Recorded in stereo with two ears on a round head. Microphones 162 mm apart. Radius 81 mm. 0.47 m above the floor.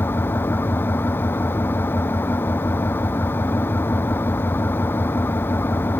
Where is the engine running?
10° left (ahead or behind).